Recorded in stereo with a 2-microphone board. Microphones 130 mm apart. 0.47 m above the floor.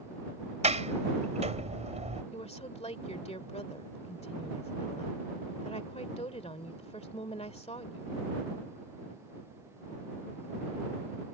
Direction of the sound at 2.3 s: 55° left (ahead or behind).